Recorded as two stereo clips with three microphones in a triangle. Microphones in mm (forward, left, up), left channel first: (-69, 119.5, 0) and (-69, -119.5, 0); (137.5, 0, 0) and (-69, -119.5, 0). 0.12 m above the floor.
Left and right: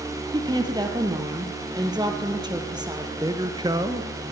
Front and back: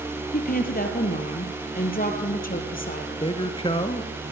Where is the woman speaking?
20° right, 3 m.